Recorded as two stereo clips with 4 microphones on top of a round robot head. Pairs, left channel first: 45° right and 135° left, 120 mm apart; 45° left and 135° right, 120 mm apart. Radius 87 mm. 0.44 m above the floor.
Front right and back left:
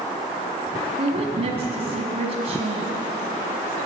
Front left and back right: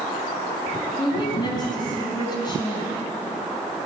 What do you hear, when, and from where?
1.0 s a woman speaking: 100° left, 4.5 m